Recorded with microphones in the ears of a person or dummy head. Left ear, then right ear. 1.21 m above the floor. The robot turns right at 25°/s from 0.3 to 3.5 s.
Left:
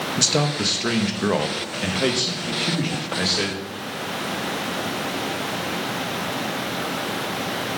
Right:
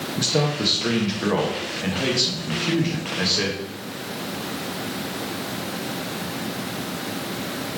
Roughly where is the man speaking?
Left.